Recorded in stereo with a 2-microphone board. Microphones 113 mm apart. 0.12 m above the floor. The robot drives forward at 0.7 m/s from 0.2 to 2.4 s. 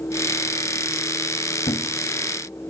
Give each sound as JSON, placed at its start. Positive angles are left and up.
{"t": 1.7, "sound": "a thud", "side_deg": 65, "distance_m": 0.8}